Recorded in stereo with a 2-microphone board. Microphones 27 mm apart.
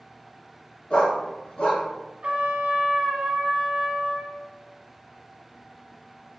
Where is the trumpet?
45° right (ahead or behind), 0.8 m.